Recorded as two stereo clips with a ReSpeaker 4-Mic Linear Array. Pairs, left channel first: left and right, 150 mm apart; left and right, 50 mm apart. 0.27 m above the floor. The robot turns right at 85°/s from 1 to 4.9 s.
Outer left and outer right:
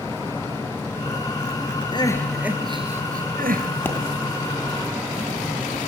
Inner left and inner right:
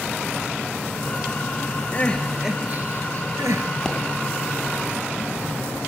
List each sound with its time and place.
1.9 s crying: 145° left, 2 m; by 3.6 s 70° right, 2 m
3.9 s a pop: 15° left (ahead or behind), 2.5 m; by 4.0 s 20° left (ahead or behind), 2.5 m